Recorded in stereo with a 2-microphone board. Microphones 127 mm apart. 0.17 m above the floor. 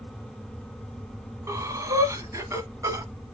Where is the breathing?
25° right (ahead or behind), 1.1 m.